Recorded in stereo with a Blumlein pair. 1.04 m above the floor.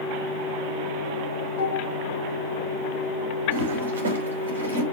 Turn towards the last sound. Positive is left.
turn(degrees=-70)